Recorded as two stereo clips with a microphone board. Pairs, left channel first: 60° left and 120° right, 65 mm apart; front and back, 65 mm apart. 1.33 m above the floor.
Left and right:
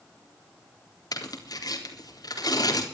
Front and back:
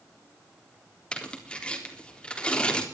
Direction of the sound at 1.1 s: 75° left.